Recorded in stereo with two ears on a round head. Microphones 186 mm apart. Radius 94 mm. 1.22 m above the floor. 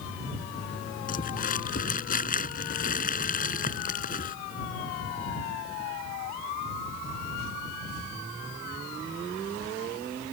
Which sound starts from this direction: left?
Crumpling, at 1.1 s.